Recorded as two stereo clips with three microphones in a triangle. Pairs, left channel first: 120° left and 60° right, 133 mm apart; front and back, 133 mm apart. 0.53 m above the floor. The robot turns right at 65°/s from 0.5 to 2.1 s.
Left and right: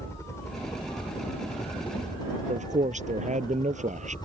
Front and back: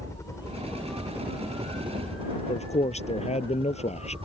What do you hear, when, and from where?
0.0 s a helicopter: 60° left; by 4.2 s 165° left
2.5 s a man speaking: 35° right